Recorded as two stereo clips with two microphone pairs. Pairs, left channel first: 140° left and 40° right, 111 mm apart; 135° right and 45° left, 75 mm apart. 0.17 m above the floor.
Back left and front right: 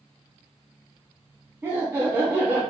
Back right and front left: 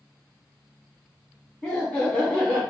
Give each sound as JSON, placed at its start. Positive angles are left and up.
{"t": 1.6, "sound": "laughter", "azimuth_deg": -80, "distance_m": 1.1}